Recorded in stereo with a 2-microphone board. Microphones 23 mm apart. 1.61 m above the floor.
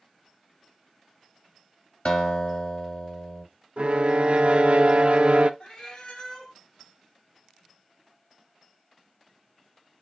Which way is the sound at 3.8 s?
60° right (ahead or behind).